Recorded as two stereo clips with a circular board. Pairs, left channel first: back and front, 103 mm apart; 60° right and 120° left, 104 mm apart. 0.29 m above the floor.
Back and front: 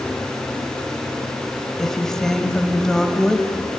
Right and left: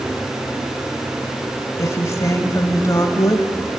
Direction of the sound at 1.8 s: 100° right.